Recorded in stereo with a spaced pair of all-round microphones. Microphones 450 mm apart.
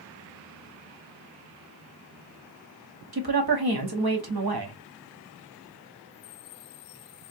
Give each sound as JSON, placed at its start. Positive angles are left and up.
{"t": 3.1, "sound": "a woman speaking", "side_deg": -55, "distance_m": 0.9}